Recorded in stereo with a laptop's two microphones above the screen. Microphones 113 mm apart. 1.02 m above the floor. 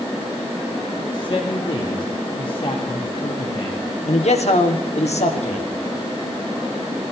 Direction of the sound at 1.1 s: 45° left (ahead or behind).